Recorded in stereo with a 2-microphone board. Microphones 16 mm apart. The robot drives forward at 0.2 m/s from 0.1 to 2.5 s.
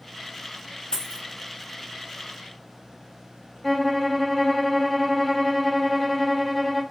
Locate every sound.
0.9 s a dropped coin: 50° left (ahead or behind), 1.0 m
3.6 s a violin: 5° right (ahead or behind), 0.5 m